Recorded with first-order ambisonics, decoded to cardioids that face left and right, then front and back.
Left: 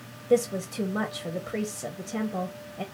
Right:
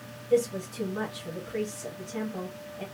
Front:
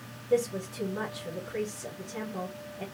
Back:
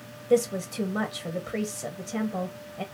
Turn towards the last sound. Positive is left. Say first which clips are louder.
# left 2 dB, back 4 dB
turn(degrees=130)